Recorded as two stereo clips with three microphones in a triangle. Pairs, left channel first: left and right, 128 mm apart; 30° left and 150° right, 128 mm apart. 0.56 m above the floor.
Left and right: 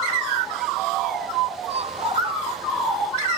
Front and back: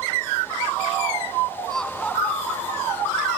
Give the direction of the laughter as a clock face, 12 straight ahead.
2 o'clock.